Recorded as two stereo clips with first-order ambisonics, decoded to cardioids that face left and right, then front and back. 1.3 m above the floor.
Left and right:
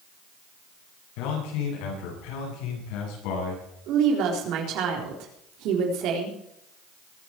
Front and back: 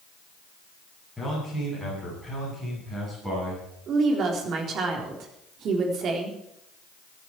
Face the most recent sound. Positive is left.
turn(degrees=-125)